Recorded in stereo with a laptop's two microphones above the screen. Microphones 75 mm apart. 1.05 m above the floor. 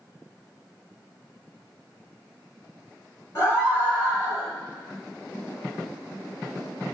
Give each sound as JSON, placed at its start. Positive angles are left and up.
{"t": 3.4, "sound": "a scream", "side_deg": 30, "distance_m": 4.0}